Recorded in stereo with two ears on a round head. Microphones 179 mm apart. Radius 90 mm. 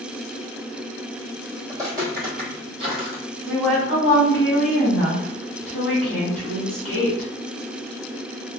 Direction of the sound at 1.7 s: 15° right (ahead or behind).